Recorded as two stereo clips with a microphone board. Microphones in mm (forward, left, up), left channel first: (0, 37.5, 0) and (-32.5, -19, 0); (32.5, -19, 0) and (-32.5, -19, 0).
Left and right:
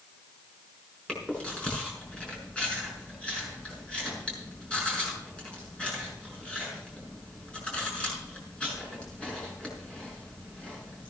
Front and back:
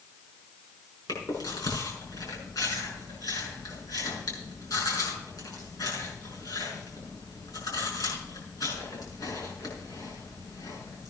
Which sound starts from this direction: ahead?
Chewing, at 1.1 s.